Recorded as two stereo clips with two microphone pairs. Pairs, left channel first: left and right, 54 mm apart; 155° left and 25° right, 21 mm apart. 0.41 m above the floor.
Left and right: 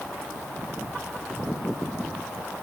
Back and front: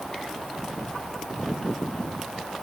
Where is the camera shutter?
No camera shutter in this recording.